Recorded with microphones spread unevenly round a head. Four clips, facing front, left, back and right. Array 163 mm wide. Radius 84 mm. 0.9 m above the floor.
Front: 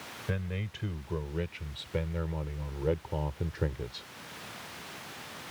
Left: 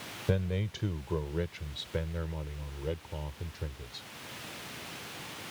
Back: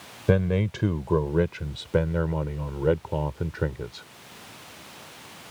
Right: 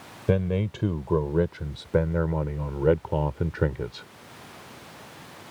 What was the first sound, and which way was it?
A man speaking, 150° right.